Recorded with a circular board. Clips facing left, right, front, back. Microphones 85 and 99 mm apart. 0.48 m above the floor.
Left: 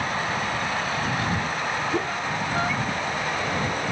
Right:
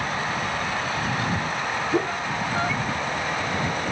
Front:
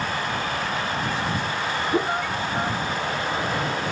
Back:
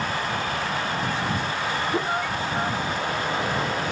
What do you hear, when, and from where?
1.9 s a whoosh: 50° right